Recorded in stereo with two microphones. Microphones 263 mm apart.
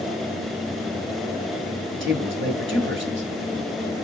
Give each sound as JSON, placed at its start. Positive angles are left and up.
{"t": 2.0, "sound": "a man speaking", "side_deg": -45, "distance_m": 1.3}